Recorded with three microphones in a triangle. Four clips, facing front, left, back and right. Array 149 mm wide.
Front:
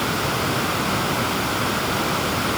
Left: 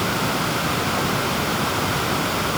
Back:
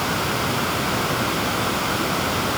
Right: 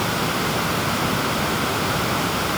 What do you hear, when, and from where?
Only background noise.